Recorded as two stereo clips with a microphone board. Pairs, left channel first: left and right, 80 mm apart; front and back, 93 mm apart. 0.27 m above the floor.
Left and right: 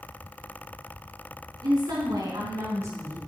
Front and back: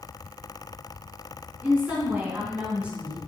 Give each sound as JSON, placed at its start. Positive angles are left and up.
{"t": 1.6, "sound": "a woman speaking", "azimuth_deg": -110, "distance_m": 3.5}